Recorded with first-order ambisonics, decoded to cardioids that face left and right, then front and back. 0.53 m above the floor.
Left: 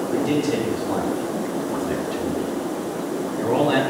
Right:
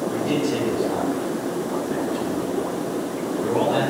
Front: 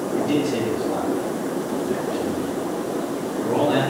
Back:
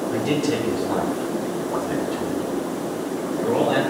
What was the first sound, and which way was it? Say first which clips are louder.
A man speaking: left 4 dB, front 1 dB; 170° left.